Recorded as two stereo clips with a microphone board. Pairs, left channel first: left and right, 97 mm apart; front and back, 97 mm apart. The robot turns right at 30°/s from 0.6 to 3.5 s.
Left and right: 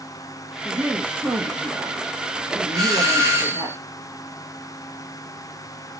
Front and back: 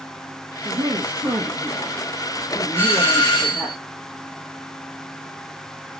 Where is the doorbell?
55° right, 1.5 m; by 3.8 s 35° right, 1.5 m.